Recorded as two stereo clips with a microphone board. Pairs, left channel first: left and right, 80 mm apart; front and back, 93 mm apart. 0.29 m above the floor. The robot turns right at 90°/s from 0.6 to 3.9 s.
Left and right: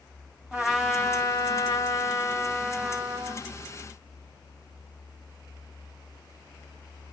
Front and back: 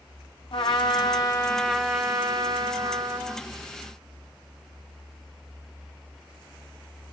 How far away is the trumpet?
About 0.7 m.